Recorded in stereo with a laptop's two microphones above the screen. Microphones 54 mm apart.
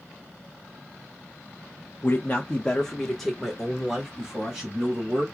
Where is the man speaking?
35° left (ahead or behind), 0.6 m; by 5.2 s 15° right (ahead or behind), 2 m.